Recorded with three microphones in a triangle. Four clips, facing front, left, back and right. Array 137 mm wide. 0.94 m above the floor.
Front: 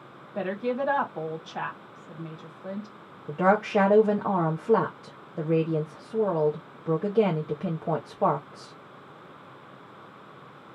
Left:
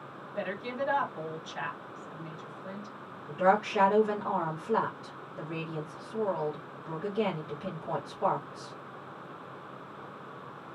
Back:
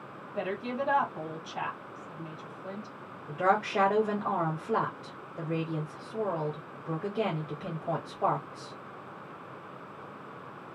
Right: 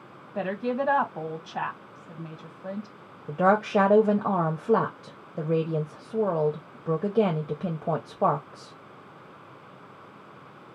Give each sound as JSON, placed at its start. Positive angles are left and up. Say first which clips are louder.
{"t": 0.3, "sound": "a woman speaking", "louder": "right 6 dB, front 5 dB", "azimuth_deg": -65, "distance_m": 1.1}
{"t": 3.3, "sound": "a woman speaking", "louder": "right 4 dB, front 4 dB", "azimuth_deg": -60, "distance_m": 0.8}